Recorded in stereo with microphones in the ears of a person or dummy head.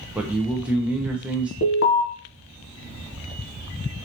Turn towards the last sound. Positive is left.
turn(degrees=55)  # may be behind; listen again after turning